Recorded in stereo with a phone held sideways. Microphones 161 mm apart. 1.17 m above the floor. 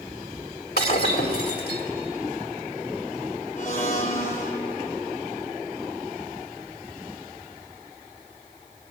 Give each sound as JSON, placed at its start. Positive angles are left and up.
{"t": 0.8, "sound": "breaking glass", "side_deg": 85, "distance_m": 3.5}
{"t": 3.6, "sound": "a blender", "side_deg": 50, "distance_m": 3.5}